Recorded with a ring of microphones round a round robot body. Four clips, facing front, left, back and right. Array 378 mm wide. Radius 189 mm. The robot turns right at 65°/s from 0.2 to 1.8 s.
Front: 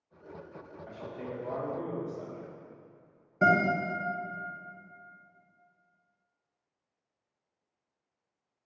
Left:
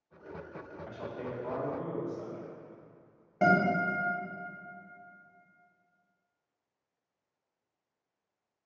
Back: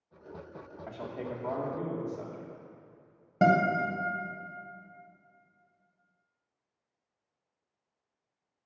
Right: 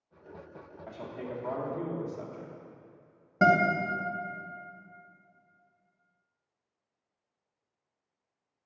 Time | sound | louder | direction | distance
0.9 | a man speaking | right 1 dB, back 2 dB | 165° left | 1.6 m
3.4 | a guitar | right 2 dB, back 1 dB | 160° right | 1.6 m